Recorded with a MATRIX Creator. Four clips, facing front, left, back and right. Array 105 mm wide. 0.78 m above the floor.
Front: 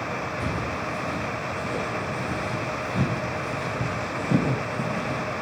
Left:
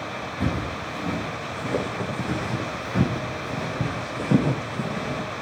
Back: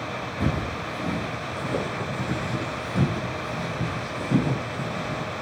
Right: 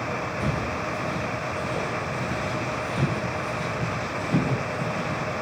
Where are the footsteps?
135° left, 4.5 m; by 5.4 s 60° left, 4.5 m.